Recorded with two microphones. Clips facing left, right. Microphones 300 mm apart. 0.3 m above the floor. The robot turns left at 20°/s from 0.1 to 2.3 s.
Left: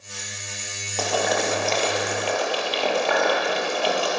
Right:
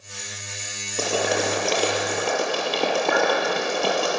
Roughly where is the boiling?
Right.